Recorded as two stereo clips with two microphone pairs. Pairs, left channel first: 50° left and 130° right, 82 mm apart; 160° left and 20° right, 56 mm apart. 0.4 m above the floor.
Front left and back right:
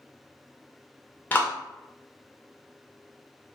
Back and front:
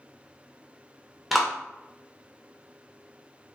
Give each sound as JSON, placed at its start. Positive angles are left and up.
{"t": 1.3, "sound": "a clap", "azimuth_deg": 65, "distance_m": 0.6}